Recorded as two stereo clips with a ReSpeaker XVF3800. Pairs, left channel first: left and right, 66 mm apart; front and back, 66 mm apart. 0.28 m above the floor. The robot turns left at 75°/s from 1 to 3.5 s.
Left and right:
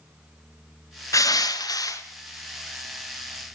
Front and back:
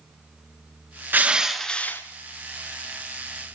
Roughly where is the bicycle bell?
No bicycle bell in this recording.